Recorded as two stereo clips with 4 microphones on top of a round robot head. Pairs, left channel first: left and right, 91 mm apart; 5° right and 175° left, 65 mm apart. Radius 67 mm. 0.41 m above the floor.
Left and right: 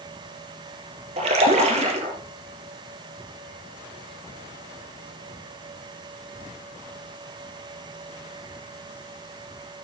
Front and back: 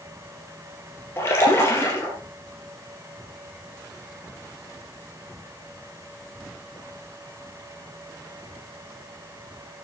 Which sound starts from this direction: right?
A splash, at 1.2 s.